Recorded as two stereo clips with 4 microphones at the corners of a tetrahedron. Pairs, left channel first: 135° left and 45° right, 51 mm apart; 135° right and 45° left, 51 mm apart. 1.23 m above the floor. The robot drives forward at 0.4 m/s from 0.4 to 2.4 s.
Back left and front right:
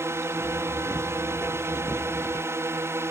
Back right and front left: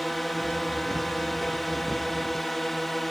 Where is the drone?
50° right.